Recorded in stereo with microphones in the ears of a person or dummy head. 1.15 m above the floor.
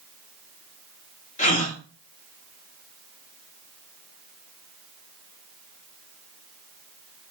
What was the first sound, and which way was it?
A gasp, 40° left (ahead or behind).